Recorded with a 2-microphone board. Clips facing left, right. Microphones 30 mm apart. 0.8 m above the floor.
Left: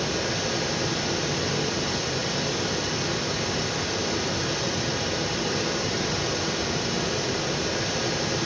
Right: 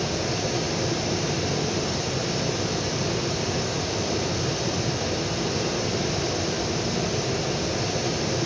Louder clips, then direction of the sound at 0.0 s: Even; 55° left (ahead or behind).